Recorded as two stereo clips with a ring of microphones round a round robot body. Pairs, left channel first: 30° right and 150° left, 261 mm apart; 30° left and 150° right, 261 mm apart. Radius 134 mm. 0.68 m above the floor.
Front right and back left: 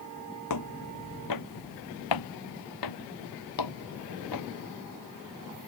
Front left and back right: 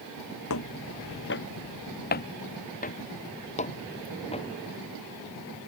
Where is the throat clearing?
No throat clearing in this recording.